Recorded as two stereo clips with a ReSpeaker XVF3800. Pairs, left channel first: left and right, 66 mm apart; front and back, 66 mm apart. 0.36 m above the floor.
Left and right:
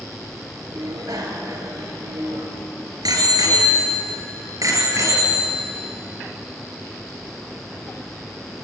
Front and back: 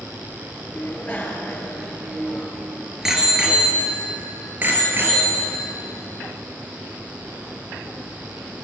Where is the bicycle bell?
65° right, 4.5 m; by 5.9 s 130° right, 5.5 m.